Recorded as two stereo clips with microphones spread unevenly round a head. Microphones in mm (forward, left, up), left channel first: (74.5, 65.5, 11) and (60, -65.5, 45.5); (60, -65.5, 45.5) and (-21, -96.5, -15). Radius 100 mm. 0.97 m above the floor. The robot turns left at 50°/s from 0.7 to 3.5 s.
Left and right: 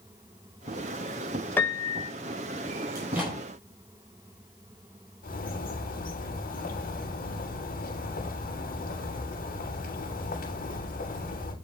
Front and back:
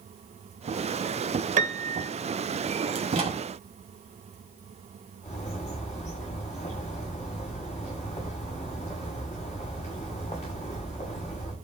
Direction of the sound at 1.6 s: 175° left.